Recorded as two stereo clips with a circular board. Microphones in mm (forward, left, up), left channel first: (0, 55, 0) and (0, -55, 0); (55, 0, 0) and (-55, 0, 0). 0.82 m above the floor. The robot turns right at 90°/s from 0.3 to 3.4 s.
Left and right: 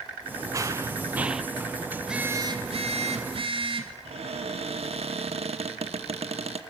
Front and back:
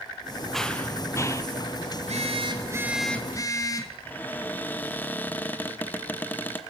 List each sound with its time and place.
0.5 s running footsteps: 85° right, 0.9 m; by 1.4 s 5° right, 0.9 m
2.0 s a phone buzzing: 175° left, 1.8 m; by 4.0 s 55° right, 1.8 m
4.0 s a cupboard door: 70° right, 1.1 m